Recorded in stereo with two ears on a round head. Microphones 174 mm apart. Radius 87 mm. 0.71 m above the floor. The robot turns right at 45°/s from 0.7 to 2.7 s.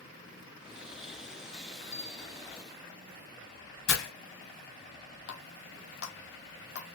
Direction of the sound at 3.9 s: 75° left (ahead or behind).